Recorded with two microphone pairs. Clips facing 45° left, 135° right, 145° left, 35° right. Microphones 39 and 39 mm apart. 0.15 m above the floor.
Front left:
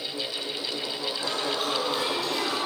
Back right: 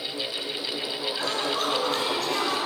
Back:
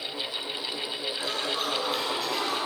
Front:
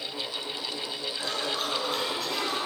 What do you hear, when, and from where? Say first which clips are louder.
1.2 s laughter: back right 2 dB, even; 125° right, 9.5 m